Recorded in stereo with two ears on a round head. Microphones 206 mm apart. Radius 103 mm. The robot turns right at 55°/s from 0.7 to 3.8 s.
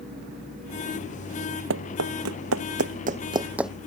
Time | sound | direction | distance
1.7 | running footsteps | 60° right (ahead or behind) | ?